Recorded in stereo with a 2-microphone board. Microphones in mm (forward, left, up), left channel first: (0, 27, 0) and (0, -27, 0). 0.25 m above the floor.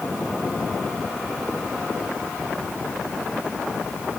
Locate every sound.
Only background noise.